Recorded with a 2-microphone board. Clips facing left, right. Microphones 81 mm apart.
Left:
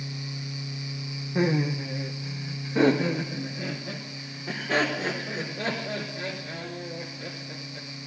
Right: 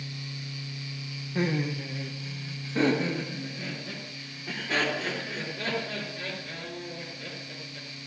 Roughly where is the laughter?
Centre.